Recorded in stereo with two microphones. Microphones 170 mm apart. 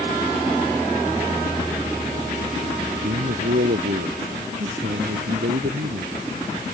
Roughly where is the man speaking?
Right.